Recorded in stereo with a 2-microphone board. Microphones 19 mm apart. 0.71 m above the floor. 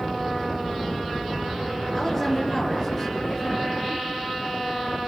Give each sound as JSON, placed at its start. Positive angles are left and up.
{"t": 1.9, "sound": "a woman speaking", "side_deg": 0, "distance_m": 9.5}